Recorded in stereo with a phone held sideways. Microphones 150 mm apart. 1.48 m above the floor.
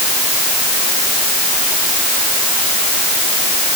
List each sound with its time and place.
Only background noise.